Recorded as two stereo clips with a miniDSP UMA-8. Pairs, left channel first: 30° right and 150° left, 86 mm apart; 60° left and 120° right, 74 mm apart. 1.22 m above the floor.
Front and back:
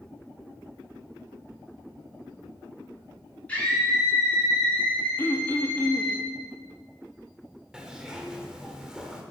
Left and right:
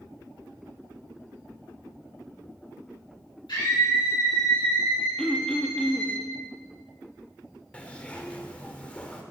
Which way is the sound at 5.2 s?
5° right.